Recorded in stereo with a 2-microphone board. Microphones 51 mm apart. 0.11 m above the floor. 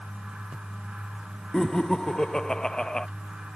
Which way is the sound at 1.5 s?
15° left (ahead or behind).